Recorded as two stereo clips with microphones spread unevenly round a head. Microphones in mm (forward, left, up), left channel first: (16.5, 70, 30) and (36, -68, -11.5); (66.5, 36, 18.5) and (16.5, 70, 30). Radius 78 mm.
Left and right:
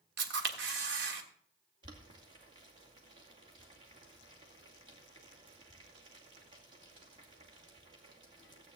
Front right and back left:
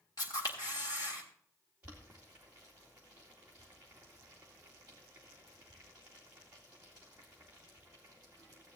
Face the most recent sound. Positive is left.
turn(degrees=-135)